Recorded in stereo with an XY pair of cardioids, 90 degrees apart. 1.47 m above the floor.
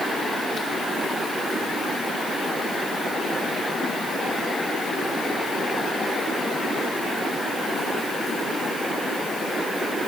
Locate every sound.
Only background noise.